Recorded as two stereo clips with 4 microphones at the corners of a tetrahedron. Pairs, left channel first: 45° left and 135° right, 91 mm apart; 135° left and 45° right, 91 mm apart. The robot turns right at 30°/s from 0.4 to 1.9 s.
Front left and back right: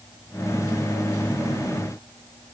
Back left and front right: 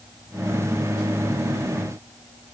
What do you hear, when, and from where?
Only background noise.